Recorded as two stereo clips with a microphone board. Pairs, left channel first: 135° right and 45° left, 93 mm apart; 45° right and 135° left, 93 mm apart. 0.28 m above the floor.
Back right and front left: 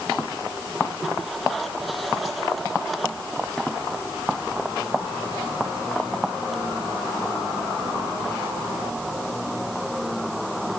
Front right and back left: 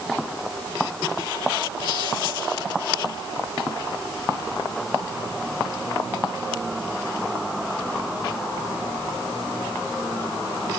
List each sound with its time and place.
Only background noise.